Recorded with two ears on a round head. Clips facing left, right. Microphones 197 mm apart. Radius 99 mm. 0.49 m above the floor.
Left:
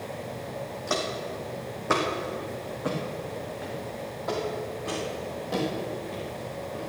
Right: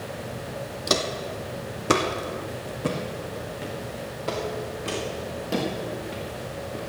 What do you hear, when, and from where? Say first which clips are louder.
0.9 s footsteps: right 4 dB; 50° right (ahead or behind), 1.5 m; by 6.8 s 35° right (ahead or behind), 5 m